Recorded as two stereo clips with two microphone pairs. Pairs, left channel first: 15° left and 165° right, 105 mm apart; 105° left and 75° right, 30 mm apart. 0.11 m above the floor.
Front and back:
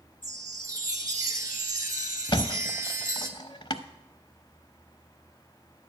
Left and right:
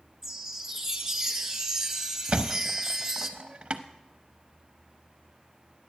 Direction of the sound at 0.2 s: 140° right.